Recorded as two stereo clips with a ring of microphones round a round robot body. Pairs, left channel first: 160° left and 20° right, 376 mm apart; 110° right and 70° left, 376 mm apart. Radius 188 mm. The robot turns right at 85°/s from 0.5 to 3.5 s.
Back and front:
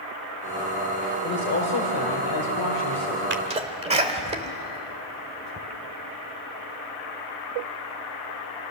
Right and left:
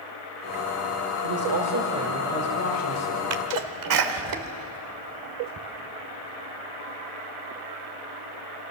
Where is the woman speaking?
80° left, 2 m; by 3.2 s 115° right, 2 m.